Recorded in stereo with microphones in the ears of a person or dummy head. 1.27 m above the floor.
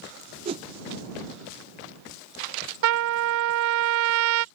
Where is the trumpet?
70° right (ahead or behind).